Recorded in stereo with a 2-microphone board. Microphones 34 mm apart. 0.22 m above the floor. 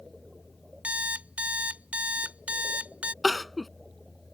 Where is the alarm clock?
50° right (ahead or behind).